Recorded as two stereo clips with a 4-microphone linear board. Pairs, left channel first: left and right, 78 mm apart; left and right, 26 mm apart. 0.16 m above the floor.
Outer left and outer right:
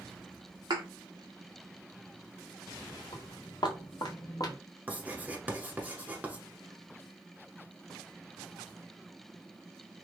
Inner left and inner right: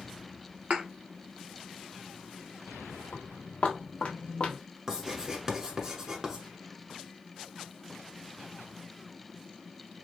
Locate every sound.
0.7 s a thud: 70° right (ahead or behind), 1.0 m
3.1 s footsteps: 80° left, 1.5 m; by 4.6 s 50° left (ahead or behind), 1.2 m
4.9 s writing: 20° right (ahead or behind), 1.0 m